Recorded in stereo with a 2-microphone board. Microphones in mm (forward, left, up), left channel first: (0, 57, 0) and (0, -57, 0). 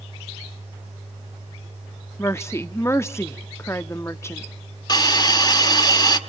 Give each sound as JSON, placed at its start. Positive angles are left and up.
{"t": 2.2, "sound": "a woman speaking", "side_deg": 25, "distance_m": 0.8}
{"t": 4.9, "sound": "a hiss", "side_deg": 35, "distance_m": 1.5}